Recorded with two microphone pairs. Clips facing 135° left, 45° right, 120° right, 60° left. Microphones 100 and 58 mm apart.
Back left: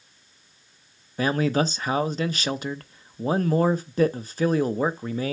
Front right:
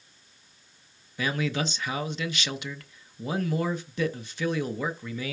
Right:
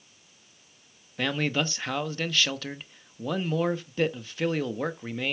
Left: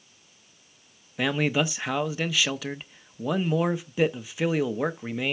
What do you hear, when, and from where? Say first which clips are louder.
1.2 s a man speaking: back left 6 dB, left 3 dB; 135° left, 0.6 m